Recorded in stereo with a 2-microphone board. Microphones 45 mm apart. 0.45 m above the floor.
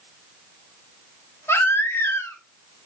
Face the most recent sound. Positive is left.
turn(degrees=65)  # may be behind; listen again after turning